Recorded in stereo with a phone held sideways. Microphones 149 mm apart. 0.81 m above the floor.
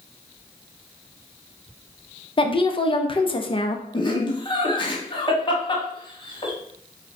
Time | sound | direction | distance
2.4 | a woman speaking | 35° left (ahead or behind) | 0.5 m
3.9 | laughter | 35° left (ahead or behind) | 1.2 m